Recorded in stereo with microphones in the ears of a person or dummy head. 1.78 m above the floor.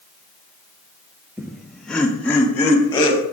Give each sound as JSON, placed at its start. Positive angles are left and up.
{"t": 1.4, "sound": "laughter", "side_deg": -5, "distance_m": 0.7}